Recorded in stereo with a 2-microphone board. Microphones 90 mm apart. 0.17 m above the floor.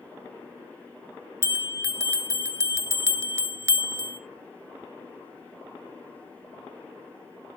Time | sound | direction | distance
1.4 | a bell | 30° right (ahead or behind) | 1.1 m